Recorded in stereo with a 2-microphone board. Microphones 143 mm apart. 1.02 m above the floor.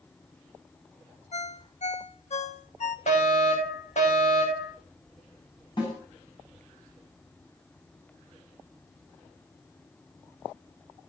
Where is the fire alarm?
55° left (ahead or behind), 6 m.